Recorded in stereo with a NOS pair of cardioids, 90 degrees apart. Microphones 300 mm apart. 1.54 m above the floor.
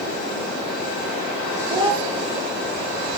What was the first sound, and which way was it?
A child speaking, 20° right.